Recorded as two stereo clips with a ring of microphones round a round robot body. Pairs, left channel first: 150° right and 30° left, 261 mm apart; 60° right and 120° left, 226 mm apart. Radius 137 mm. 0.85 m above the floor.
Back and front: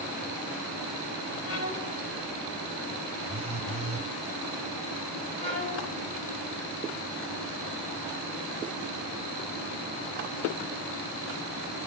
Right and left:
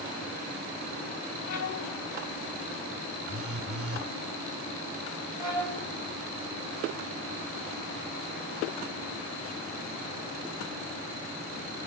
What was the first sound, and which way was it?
A violin, 120° right.